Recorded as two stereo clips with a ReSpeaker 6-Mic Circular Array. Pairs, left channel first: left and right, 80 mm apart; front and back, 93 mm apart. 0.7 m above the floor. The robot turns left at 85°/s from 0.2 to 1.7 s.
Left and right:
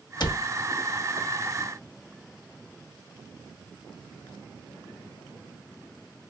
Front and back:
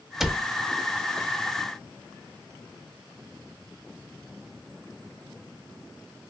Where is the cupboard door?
95° left, 0.5 m; by 0.5 s 75° left, 0.5 m.